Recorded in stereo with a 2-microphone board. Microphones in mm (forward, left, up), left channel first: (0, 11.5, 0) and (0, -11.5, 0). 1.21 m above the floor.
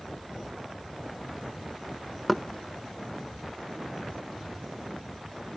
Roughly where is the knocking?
Centre.